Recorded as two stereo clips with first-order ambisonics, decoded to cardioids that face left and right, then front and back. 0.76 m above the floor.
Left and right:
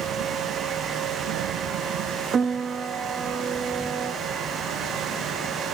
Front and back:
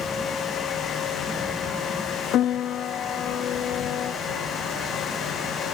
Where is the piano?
30° right, 0.7 m.